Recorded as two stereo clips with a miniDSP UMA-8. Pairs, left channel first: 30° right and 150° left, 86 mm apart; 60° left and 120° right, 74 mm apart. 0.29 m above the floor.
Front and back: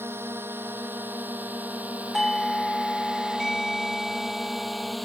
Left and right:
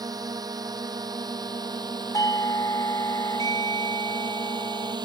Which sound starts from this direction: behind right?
A drone, at 0.0 s.